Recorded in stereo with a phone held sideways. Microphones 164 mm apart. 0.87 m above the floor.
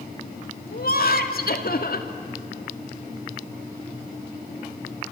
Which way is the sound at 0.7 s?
65° left (ahead or behind).